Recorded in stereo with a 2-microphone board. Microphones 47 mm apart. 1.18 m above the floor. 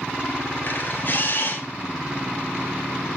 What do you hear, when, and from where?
0.6 s a camera shutter: 50° left (ahead or behind), 3 m